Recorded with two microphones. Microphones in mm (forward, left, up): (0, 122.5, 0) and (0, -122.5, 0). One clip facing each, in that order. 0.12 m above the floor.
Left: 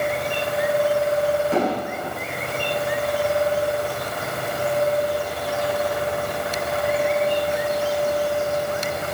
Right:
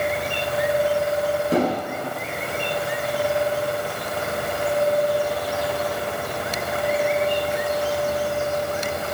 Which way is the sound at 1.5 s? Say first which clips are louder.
Right 1 dB; 40° right (ahead or behind).